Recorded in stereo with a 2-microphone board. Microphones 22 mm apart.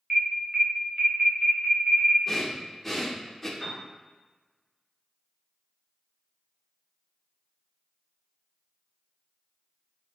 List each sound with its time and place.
0.1 s an alarm: 25° right (ahead or behind), 1.0 m
2.3 s breathing: 5° left (ahead or behind), 0.6 m
3.6 s a piano: 25° right (ahead or behind), 1.5 m